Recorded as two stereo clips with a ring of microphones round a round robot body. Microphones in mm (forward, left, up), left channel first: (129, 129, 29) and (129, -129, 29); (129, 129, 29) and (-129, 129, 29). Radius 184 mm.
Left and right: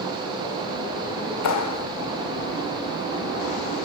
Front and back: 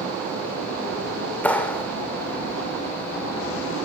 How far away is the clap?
About 3 m.